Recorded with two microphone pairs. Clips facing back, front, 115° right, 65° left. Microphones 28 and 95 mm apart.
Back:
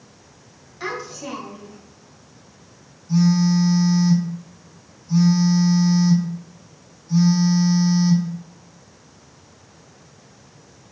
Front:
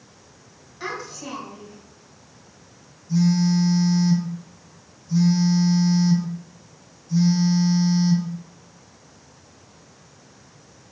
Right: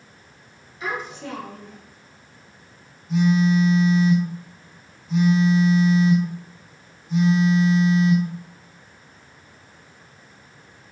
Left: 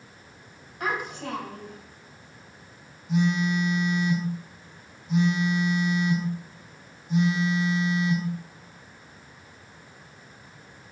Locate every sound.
0.8 s a child speaking: 100° left, 3 m
3.1 s a phone buzzing: 135° left, 3.5 m